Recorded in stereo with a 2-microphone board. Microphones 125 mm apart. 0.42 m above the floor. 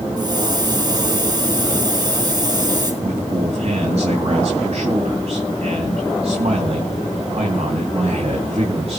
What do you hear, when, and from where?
0.2 s a hiss: 35° right (ahead or behind), 5.5 m
3.0 s a man speaking: 60° right (ahead or behind), 3 m